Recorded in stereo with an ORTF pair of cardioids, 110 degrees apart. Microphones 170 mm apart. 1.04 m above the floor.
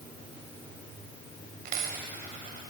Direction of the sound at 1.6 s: 60° right.